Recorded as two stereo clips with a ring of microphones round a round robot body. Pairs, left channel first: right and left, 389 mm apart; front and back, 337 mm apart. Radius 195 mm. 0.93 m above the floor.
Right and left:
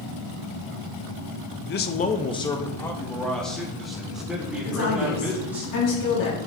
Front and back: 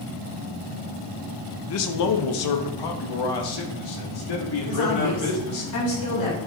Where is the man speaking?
35° right, 0.6 m; by 5.6 s 5° left, 3 m.